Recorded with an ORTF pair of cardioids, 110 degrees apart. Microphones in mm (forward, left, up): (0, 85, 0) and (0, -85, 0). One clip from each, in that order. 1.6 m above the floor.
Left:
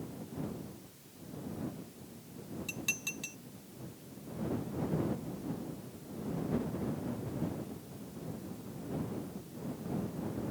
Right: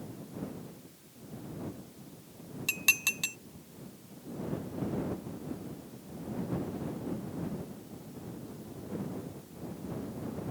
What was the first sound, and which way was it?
Dishes clattering, 65° right.